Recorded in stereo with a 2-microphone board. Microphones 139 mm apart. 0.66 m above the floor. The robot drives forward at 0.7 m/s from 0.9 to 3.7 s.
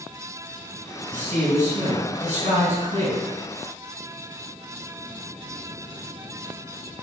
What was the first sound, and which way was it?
A man speaking, 65° right (ahead or behind).